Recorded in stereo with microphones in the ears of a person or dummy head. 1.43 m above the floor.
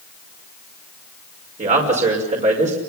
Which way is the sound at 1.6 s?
35° right (ahead or behind).